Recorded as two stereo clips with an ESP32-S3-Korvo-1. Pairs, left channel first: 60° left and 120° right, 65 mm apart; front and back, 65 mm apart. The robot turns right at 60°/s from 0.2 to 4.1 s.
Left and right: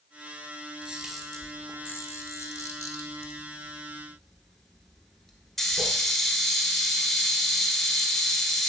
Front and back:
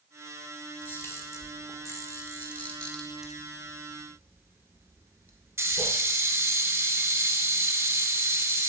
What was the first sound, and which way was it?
A camera shutter, 50° right.